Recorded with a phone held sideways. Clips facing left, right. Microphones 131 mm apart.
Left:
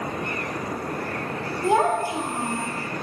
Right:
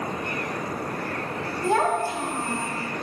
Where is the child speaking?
15° left (ahead or behind), 0.9 m.